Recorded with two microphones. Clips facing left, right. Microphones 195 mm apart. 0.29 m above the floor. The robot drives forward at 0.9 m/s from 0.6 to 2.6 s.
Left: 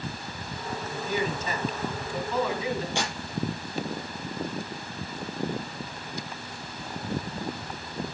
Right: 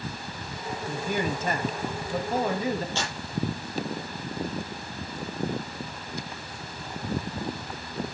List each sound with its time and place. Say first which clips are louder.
0.9 s a man speaking: right 1 dB; 55° right (ahead or behind), 2 m; by 2.9 s 45° right (ahead or behind), 2.5 m
3.0 s tearing paper: left 2 dB; 15° left (ahead or behind), 6 m